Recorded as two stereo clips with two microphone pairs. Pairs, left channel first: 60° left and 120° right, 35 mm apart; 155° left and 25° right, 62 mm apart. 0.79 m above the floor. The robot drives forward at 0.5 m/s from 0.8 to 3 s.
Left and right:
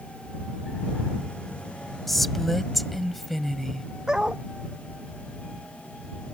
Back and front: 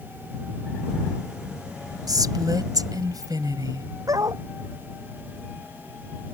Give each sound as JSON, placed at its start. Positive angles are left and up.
{"t": 2.1, "sound": "a woman speaking", "azimuth_deg": -25}
{"t": 4.1, "sound": "a dog barking", "azimuth_deg": -45}